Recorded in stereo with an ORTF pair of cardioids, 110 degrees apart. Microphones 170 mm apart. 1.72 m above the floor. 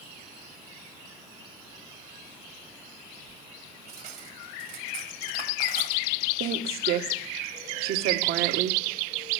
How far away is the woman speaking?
About 1.7 m.